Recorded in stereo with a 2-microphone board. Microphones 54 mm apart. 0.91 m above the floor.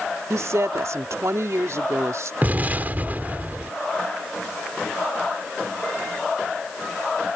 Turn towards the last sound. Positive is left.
turn(degrees=-35)  # may be behind; listen again after turning